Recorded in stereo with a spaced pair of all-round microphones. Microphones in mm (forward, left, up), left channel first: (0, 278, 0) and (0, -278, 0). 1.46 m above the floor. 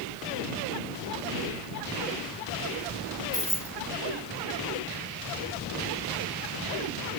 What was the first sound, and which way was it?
Keys jangling, 25° left (ahead or behind).